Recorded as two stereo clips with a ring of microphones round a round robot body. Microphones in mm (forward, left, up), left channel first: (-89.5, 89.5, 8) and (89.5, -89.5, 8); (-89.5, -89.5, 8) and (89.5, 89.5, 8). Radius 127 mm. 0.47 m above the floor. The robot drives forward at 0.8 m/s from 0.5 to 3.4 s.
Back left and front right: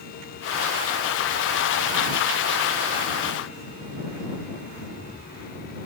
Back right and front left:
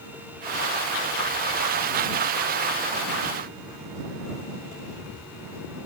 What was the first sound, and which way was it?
Only background noise.